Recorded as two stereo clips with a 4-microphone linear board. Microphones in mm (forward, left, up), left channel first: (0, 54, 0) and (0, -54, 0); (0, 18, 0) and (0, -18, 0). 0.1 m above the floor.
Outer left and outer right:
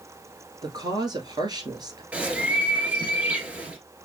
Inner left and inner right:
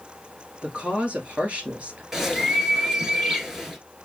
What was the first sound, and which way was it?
A woman speaking, 40° right (ahead or behind).